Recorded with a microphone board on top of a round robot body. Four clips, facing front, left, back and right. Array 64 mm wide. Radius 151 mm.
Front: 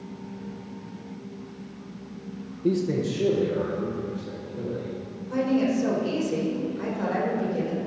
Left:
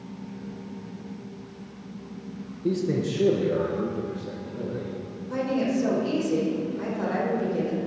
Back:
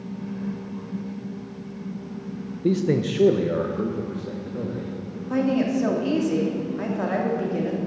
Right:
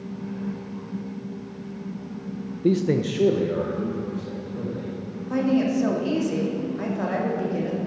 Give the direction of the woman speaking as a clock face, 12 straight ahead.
5 o'clock.